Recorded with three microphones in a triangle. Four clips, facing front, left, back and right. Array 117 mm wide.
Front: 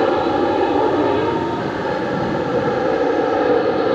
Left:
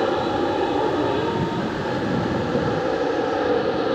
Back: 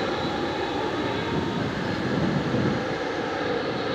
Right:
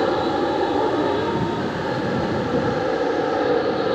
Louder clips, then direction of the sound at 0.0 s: Right 1 dB, front 11 dB; 5° right.